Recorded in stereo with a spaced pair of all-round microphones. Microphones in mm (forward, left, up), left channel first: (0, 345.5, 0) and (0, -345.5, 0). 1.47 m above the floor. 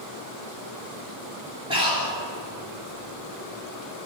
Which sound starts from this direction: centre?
Breathing, at 1.7 s.